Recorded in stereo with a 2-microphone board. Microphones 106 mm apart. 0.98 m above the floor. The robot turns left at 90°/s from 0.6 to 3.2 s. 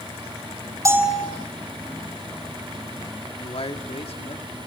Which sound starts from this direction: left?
A man speaking, at 3.4 s.